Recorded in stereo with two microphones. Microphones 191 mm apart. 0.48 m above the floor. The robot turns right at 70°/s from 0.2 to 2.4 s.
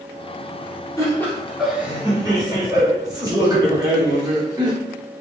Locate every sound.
1.0 s laughter: 15° left (ahead or behind), 1.0 m; by 4.7 s 20° right (ahead or behind), 1.0 m